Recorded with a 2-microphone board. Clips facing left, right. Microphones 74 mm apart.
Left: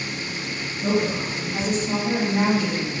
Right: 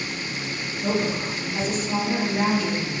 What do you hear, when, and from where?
0.8 s a woman speaking: 5° left (ahead or behind), 1.1 m; by 2.9 s 60° left (ahead or behind), 1.2 m